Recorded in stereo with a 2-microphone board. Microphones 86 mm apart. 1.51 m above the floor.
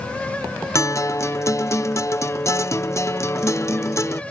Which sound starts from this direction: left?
A guitar, at 0.8 s.